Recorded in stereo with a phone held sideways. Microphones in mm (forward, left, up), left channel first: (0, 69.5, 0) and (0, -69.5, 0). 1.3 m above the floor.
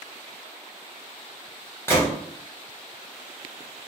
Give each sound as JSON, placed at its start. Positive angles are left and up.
{"t": 1.9, "sound": "a gunshot", "side_deg": 15, "distance_m": 1.0}